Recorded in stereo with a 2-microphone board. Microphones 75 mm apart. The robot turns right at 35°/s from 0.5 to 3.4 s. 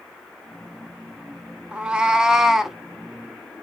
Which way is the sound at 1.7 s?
15° right (ahead or behind).